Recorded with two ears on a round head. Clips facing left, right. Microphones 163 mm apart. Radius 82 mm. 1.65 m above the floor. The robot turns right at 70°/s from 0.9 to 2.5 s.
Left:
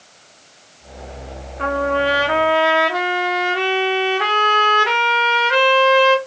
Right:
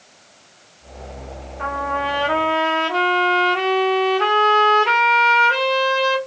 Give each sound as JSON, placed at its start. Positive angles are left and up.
{"t": 1.6, "sound": "a trumpet", "azimuth_deg": 100, "distance_m": 1.6}